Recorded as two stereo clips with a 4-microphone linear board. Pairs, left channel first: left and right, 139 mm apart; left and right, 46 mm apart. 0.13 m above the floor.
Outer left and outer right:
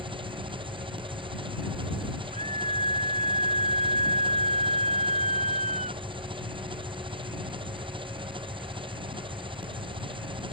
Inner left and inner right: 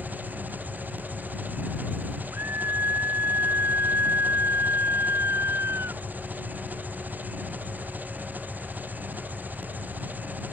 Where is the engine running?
40° right (ahead or behind).